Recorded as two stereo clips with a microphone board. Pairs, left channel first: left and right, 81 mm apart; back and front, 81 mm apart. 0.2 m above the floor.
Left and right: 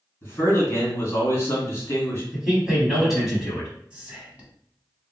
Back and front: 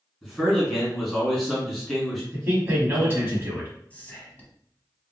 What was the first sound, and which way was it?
A man speaking, 100° left.